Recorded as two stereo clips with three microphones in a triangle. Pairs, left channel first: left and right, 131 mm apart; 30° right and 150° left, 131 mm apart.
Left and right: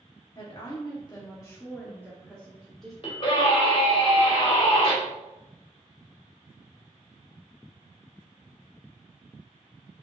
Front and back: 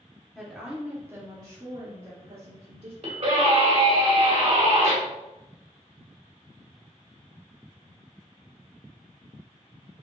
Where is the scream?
125° left, 2.5 m.